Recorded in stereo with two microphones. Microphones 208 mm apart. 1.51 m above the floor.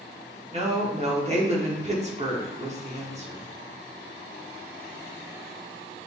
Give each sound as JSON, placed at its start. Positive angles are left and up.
{"t": 0.5, "sound": "a woman speaking", "side_deg": -35, "distance_m": 0.9}